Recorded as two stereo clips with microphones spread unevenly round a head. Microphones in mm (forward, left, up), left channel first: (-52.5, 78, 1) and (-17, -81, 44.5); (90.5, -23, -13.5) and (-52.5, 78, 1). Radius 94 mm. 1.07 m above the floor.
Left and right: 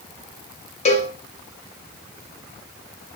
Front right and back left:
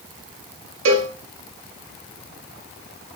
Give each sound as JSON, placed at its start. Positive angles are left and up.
{"t": 0.8, "sound": "a cowbell", "azimuth_deg": 155, "distance_m": 1.0}